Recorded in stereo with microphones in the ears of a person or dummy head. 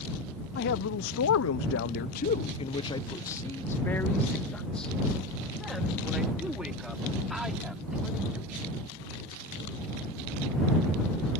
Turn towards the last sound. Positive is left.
turn(degrees=-10)  # may be behind; listen again after turning